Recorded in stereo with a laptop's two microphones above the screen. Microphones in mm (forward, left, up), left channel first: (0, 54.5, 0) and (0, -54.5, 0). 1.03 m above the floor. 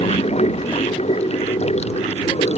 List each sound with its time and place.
0.0 s running water: 80° left